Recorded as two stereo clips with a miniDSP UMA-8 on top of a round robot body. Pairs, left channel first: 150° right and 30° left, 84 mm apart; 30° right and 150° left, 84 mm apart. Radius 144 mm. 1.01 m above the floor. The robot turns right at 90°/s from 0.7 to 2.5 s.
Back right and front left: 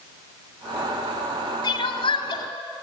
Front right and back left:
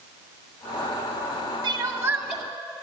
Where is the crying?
Straight behind, 1.1 m; by 2.4 s 110° right, 1.1 m.